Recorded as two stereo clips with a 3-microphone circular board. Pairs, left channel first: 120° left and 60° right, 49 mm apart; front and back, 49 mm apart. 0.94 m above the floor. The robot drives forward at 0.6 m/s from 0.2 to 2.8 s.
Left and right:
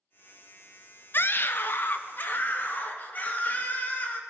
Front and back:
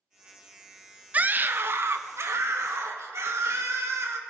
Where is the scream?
135° left, 0.5 m; by 4.2 s 170° left, 1.3 m.